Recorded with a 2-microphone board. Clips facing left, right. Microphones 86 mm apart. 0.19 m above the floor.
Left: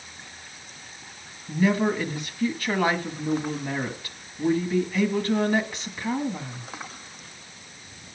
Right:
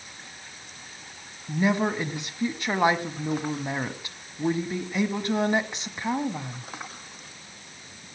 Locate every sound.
1.5 s a woman speaking: 20° right (ahead or behind), 1.2 m